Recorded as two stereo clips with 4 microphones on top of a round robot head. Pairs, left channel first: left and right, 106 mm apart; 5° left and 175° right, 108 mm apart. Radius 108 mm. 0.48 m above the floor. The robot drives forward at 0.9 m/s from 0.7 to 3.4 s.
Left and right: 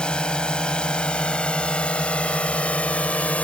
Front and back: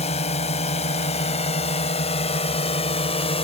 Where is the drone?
10° left; by 3.4 s 15° left.